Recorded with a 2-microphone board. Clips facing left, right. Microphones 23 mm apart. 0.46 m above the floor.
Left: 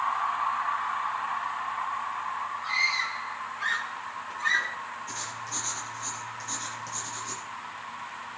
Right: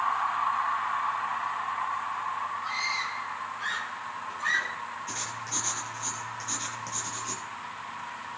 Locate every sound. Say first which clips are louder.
2.6 s a scream: left 6 dB; 10° left (ahead or behind), 5 m; by 4.8 s 5° right (ahead or behind), 5 m
5.1 s writing: right 1 dB; 20° right (ahead or behind), 3.5 m